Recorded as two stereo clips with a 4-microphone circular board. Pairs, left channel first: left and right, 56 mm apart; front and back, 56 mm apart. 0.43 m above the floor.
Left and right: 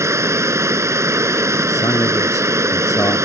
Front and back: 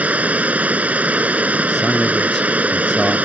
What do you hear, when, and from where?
0.0 s running water: 115° right
1.7 s a man speaking: 80° left